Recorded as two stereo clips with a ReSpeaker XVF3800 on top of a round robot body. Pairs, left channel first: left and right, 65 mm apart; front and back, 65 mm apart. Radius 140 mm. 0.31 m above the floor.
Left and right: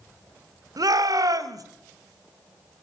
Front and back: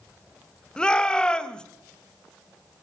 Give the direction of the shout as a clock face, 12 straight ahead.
3 o'clock.